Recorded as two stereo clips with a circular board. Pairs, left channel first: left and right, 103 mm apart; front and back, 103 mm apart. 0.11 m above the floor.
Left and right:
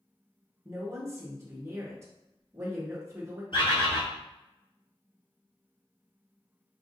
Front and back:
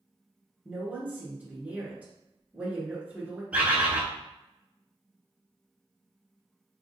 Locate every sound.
0.7 s a woman speaking: 115° right, 1.3 m
3.5 s a bird: 105° left, 1.0 m